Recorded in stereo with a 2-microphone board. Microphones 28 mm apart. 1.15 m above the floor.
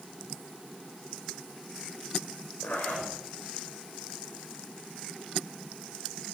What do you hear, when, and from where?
2.6 s a zipper: 70° left (ahead or behind), 5.5 m